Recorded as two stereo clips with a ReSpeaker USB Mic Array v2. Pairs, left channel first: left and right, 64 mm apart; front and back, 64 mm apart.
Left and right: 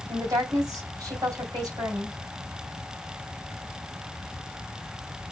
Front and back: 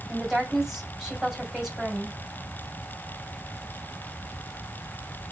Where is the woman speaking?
90° right, 2.5 m.